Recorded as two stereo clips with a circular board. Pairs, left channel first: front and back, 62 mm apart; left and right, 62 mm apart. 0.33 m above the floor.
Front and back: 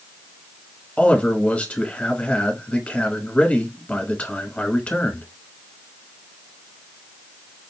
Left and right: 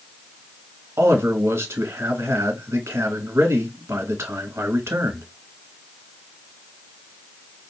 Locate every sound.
1.0 s a man speaking: 70° right, 1.3 m